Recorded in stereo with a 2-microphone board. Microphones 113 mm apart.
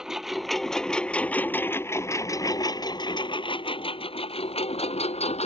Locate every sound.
0.0 s a lawn mower: 5° right (ahead or behind); by 5.5 s 70° left (ahead or behind)